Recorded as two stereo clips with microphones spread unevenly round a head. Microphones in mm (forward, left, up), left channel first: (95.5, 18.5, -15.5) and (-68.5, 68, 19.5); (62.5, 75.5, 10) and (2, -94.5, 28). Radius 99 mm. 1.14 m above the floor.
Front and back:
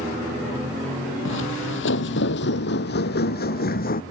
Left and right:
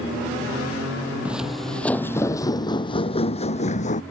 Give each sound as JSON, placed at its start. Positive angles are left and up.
{"t": 1.2, "sound": "footsteps", "azimuth_deg": -30}